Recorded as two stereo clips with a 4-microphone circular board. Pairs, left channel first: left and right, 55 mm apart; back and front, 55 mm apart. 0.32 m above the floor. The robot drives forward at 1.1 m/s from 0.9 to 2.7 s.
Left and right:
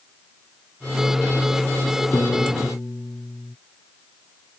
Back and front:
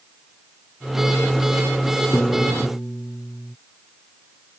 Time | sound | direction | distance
2.1 | a piano | 130° left | ?